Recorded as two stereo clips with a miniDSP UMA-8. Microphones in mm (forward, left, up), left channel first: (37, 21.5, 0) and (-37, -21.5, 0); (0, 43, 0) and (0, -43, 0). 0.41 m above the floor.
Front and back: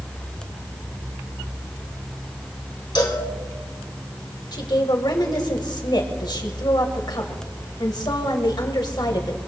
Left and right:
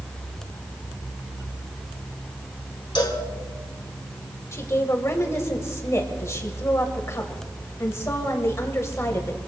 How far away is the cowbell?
About 2.5 m.